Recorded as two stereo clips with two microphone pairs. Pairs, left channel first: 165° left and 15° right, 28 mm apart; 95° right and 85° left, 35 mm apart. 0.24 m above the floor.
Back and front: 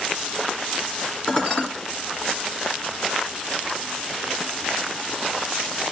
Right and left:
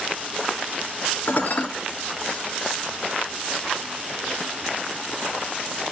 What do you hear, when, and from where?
1.3 s dishes clattering: 130° right, 2.5 m